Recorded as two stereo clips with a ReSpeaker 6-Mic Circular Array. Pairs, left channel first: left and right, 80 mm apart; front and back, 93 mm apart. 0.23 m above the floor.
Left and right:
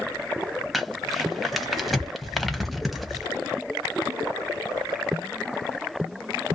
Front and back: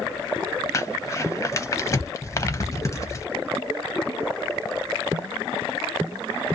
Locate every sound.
0.7 s crumpling: straight ahead, 0.6 m